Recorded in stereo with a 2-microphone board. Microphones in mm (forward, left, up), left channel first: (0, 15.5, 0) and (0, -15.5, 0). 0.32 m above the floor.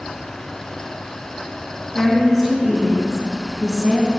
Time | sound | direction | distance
1.9 | a woman speaking | 10° right (ahead or behind) | 3 m